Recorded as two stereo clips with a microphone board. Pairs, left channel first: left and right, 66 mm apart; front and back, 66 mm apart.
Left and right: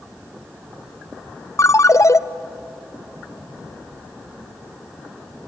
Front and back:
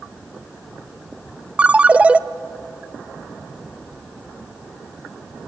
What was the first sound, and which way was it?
A ringtone, 115° left.